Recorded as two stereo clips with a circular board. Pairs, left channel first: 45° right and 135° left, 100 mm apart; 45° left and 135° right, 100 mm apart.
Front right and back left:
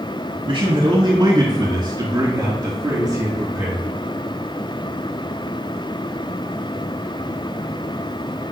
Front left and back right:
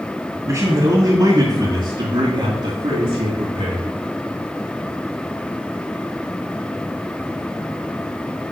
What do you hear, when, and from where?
0.5 s a man speaking: 170° left, 2.5 m; by 3.9 s 145° right, 4.5 m